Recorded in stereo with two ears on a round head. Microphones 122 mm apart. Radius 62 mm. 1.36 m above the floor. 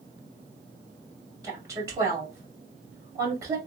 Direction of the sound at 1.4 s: 25° right (ahead or behind).